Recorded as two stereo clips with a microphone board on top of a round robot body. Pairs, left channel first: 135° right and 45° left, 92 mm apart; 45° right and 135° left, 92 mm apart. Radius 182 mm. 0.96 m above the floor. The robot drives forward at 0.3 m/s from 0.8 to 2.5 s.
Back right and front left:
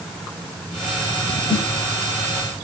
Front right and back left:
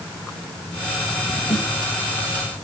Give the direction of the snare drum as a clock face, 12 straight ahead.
2 o'clock.